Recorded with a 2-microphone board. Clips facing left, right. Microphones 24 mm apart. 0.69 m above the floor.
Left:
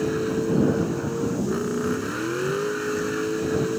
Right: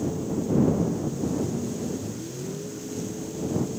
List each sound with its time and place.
0.0 s a vehicle: 80° left